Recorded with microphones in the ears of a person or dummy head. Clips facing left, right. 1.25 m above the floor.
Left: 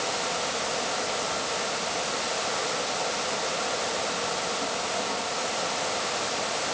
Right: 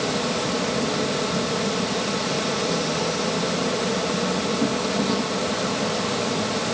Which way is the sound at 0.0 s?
60° right (ahead or behind).